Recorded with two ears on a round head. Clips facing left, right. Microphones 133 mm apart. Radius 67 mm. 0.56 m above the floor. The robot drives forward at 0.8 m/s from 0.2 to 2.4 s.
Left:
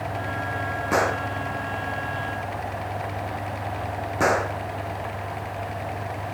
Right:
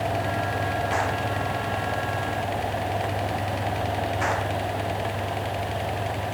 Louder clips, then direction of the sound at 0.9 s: Left 2 dB; 70° left (ahead or behind).